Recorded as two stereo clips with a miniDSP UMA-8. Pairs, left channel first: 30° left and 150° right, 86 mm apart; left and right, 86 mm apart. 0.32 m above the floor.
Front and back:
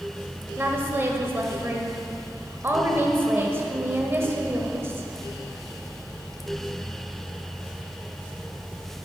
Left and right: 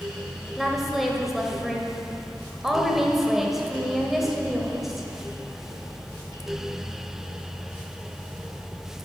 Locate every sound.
0.6 s a woman speaking: 175° right, 1.3 m